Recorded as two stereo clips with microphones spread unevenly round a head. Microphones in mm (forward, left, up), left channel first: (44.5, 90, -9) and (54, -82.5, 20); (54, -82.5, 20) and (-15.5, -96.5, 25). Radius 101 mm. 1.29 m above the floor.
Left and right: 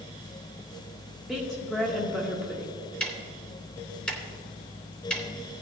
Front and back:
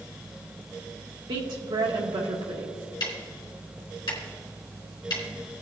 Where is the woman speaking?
Straight behind, 1.5 m.